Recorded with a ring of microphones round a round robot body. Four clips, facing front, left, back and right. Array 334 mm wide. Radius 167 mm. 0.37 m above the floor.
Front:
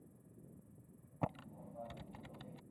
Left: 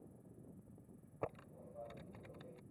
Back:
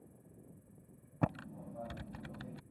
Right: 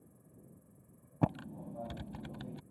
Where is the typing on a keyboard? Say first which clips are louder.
Right 11 dB, back 5 dB; 110° right.